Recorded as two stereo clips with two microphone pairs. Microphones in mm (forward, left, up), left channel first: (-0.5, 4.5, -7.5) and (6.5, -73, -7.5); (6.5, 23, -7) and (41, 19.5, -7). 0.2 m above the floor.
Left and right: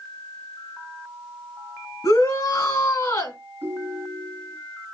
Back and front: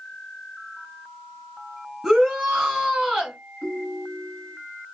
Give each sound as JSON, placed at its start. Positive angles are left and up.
{"t": 2.0, "sound": "a shout", "azimuth_deg": 75, "distance_m": 2.5}
{"t": 3.6, "sound": "a ringtone", "azimuth_deg": -130, "distance_m": 1.5}